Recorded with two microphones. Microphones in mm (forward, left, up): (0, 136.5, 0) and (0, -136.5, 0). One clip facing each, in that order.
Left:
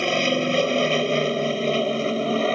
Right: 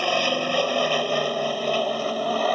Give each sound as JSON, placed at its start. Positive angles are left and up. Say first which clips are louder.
{"t": 0.0, "sound": "an aircraft", "louder": "left 3 dB", "side_deg": 25}